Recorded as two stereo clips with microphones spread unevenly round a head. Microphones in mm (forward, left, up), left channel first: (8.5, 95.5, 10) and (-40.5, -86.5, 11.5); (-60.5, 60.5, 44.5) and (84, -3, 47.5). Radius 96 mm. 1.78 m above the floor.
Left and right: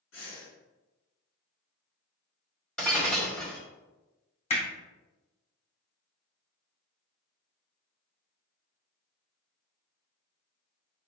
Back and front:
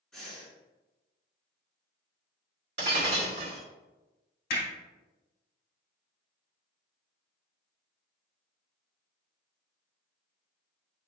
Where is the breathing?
70° left, 3.5 m.